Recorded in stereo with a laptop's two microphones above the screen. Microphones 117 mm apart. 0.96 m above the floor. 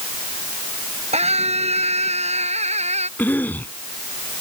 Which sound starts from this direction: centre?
A cough, at 3.2 s.